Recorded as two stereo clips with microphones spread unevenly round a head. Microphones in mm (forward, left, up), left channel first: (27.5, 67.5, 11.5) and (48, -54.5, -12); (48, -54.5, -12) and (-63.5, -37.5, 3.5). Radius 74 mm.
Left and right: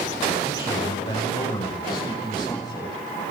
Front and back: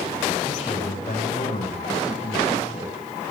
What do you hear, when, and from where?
0.4 s a man speaking: 45° left, 7.5 m; by 2.9 s 40° left, 10.5 m